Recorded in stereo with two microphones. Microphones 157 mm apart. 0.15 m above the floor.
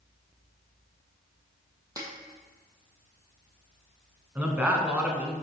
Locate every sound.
2.0 s a snare drum: 20° right (ahead or behind), 1.7 m
4.3 s a man speaking: 10° right (ahead or behind), 1.1 m